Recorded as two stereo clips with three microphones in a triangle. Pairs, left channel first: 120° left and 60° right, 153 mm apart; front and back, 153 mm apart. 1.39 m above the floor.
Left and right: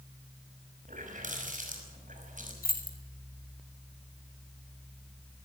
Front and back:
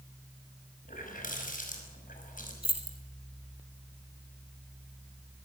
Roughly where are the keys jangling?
Behind left.